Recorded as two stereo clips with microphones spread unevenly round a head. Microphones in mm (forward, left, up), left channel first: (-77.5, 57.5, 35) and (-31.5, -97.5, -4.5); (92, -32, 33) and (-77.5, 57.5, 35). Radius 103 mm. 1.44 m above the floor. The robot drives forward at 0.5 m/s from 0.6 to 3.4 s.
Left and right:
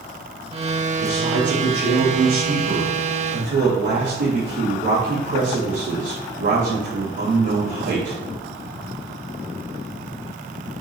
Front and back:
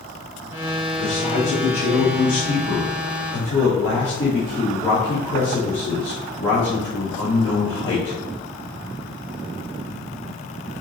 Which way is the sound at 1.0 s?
80° right.